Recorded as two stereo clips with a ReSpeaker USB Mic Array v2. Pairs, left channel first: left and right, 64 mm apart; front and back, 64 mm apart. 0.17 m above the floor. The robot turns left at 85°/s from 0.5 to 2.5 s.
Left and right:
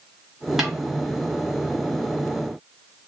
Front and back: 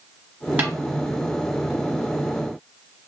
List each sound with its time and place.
0.6 s a snare drum: 165° right, 1.3 m; by 0.7 s 175° right, 1.3 m